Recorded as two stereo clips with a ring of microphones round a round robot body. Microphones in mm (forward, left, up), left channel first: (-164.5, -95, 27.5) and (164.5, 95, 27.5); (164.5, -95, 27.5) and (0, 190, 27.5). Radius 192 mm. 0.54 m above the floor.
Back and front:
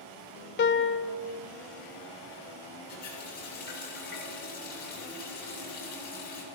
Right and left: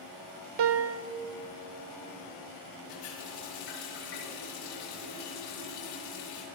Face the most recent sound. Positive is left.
turn(degrees=-85)